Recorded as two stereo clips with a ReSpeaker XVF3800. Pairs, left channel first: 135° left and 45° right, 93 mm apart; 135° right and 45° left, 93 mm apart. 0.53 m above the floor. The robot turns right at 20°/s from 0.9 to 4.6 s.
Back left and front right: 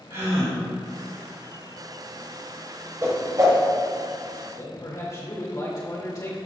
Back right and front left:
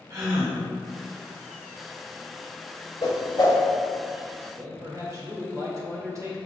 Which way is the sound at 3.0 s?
100° right.